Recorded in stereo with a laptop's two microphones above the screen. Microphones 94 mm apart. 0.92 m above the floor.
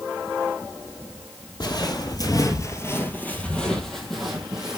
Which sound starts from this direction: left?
Footsteps, at 1.6 s.